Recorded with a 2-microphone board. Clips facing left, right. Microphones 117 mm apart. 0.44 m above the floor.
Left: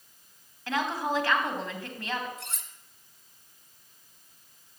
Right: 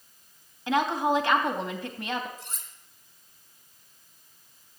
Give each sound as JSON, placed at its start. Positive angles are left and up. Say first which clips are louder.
{"t": 0.7, "sound": "a woman speaking", "louder": "right 5 dB", "side_deg": -20, "distance_m": 3.0}
{"t": 2.4, "sound": "cutlery clinking", "louder": "left 2 dB", "side_deg": 70, "distance_m": 1.8}